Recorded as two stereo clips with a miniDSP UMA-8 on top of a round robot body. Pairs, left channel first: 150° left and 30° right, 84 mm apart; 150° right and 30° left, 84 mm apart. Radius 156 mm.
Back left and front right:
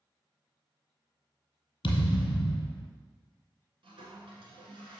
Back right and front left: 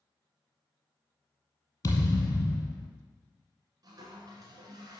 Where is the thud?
165° left, 1.6 m.